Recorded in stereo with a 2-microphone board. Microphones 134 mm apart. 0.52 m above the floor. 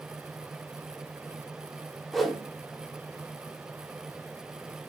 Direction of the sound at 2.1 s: Centre (ahead or behind).